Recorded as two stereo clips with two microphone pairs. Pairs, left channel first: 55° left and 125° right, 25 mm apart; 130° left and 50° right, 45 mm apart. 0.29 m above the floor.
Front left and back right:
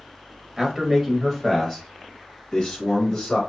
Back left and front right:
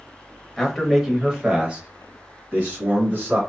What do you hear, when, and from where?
0.6 s a man speaking: 150° right, 0.9 m; by 3.4 s 15° right, 1.7 m